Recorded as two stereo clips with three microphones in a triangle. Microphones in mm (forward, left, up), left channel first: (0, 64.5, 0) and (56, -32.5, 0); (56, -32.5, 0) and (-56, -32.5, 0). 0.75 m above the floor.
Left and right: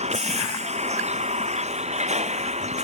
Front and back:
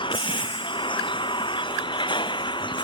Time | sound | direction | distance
0.0 | a vehicle | 45° right | ?